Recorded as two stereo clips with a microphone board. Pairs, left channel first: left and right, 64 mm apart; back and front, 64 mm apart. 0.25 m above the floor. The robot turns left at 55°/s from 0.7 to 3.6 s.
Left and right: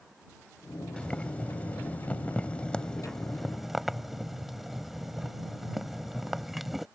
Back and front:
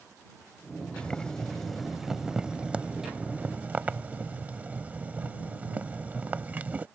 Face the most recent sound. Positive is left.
turn(degrees=-5)